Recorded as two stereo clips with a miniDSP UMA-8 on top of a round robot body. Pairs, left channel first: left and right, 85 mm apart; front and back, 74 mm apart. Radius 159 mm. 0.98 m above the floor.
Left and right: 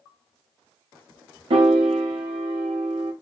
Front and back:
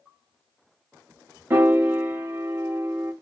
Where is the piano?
115° right, 0.6 m.